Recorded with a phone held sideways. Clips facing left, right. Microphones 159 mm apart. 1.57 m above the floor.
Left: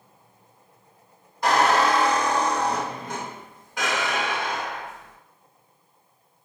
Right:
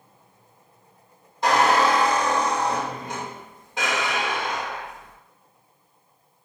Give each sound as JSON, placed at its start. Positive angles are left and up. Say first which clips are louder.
{"t": 1.4, "sound": "a squeak", "louder": "right 1 dB", "side_deg": -25, "distance_m": 1.3}